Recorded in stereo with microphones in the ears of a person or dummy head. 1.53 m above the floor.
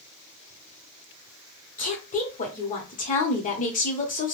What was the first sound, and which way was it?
A woman speaking, 45° left (ahead or behind).